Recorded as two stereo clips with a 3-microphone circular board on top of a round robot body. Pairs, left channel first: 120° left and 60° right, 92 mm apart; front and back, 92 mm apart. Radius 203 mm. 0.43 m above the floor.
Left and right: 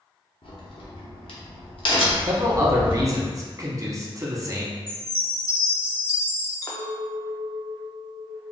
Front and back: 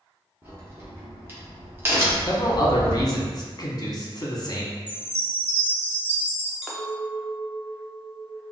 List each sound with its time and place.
0.4 s a crack: 115° left, 1.1 m
2.3 s a man speaking: 25° right, 1.1 m
4.9 s a chime: 75° right, 0.7 m
6.6 s a clink: 100° left, 0.9 m